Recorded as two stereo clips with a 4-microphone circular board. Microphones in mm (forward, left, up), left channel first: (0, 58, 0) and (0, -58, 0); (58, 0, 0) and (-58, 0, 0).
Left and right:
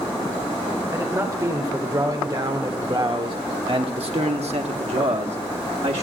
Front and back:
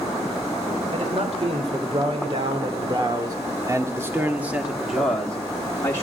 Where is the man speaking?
155° right, 2.5 m; by 6.0 s 65° right, 1.5 m.